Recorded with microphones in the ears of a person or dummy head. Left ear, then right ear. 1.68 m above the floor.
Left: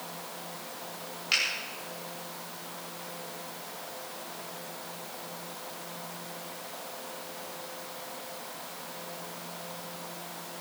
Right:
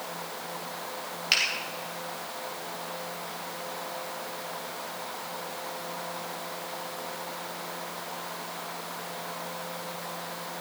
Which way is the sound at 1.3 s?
15° right (ahead or behind).